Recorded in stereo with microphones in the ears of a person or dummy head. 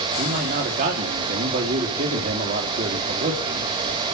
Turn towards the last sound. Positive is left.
turn(degrees=-50)  # may be behind; listen again after turning